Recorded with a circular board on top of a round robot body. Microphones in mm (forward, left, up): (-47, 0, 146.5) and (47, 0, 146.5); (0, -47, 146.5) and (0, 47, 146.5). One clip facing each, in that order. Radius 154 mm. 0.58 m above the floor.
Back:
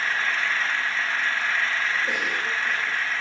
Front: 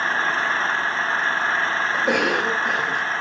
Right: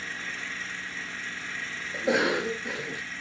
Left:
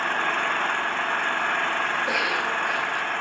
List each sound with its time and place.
0.0 s an engine running: 60° left
1.9 s a cough: 25° right